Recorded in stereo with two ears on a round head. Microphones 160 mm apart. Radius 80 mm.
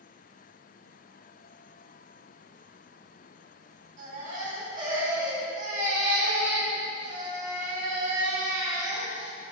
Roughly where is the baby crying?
Right.